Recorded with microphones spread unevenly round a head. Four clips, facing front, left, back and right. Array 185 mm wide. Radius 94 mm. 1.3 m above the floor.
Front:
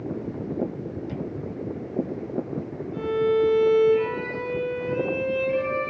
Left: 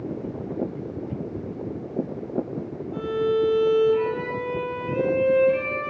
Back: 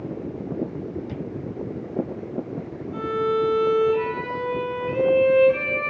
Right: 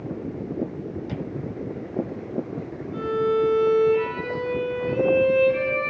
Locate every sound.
2.9 s a violin: 165° left, 4 m